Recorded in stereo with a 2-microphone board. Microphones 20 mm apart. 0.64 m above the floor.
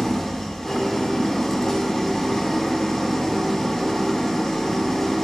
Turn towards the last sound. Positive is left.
turn(degrees=20)  # may be behind; listen again after turning